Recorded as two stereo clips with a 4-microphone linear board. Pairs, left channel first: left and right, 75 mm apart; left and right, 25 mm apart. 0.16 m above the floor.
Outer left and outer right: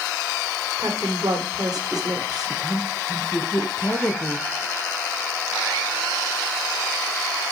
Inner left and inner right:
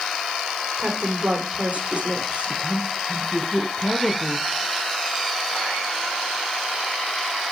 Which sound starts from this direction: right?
A woman speaking, at 0.8 s.